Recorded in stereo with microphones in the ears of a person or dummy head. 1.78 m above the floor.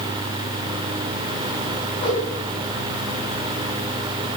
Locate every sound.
2.0 s a whoosh: 35° left (ahead or behind), 7.5 m